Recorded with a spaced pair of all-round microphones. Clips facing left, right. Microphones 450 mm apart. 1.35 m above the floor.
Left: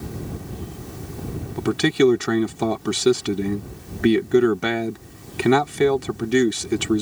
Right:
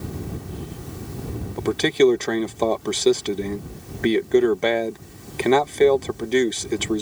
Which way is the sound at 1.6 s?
25° left (ahead or behind).